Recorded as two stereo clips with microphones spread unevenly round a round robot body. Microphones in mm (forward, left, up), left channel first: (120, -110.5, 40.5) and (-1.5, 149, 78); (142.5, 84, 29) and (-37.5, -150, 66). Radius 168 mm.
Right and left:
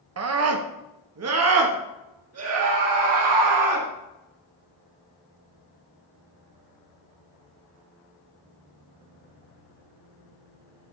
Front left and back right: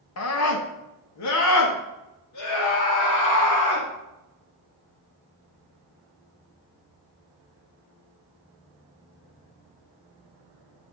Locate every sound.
0.2 s a scream: 80° left, 1.2 m; by 3.9 s 75° left, 3 m